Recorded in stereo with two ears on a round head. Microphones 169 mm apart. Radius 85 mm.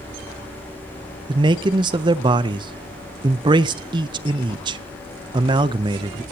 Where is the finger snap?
I don't hear a finger snap.